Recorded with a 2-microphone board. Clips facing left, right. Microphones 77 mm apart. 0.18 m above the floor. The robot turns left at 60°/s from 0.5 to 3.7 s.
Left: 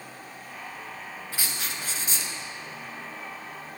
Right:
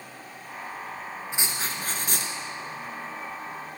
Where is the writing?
20° right, 1.7 m; by 2.3 s 85° right, 1.7 m.